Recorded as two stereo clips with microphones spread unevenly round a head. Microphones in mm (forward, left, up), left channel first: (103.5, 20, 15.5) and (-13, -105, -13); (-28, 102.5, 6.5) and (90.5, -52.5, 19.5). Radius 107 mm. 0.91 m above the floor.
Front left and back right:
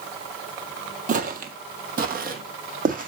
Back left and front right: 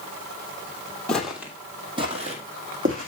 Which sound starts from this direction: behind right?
Footsteps, at 1.1 s.